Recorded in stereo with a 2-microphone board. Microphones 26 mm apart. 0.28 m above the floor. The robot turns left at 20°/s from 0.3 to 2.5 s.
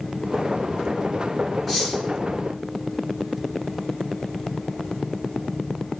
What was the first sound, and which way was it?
Cutlery clinking, 5° left (ahead or behind).